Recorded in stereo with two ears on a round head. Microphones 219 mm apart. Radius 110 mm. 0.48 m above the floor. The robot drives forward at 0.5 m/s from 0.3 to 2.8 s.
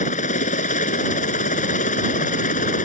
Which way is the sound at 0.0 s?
30° left (ahead or behind).